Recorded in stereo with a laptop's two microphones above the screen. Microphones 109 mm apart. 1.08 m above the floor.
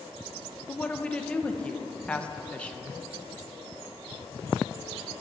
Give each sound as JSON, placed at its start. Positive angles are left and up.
{"t": 0.7, "sound": "a woman speaking", "side_deg": 10, "distance_m": 0.6}